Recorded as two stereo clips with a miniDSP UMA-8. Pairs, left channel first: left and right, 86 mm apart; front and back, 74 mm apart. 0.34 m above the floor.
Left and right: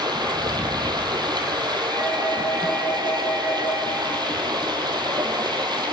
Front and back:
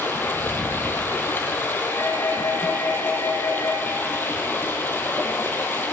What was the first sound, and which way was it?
Running water, 60° right.